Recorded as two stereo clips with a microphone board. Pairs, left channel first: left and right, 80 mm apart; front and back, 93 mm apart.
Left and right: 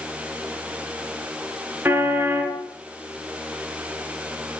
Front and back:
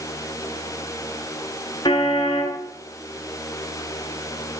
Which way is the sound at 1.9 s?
30° right.